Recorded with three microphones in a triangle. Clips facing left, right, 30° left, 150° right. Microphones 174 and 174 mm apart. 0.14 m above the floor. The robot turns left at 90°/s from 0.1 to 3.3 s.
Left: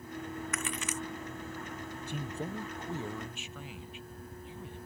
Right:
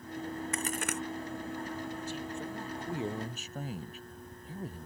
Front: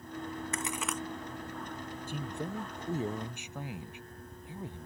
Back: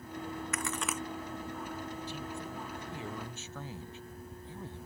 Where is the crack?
30° right; by 1.0 s 70° right.